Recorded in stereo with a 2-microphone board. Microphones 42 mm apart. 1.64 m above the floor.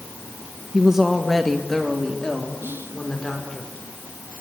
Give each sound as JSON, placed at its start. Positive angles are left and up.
{"t": 0.7, "sound": "a woman speaking", "side_deg": -20, "distance_m": 1.3}
{"t": 2.6, "sound": "whispering", "side_deg": -60, "distance_m": 2.5}